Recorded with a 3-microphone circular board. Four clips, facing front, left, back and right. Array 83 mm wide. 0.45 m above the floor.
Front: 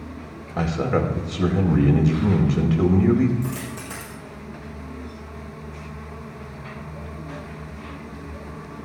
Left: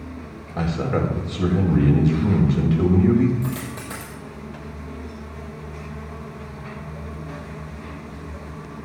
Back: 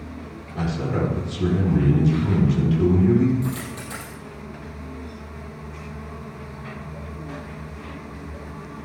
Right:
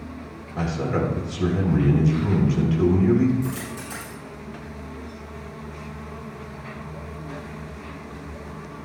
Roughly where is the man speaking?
Ahead.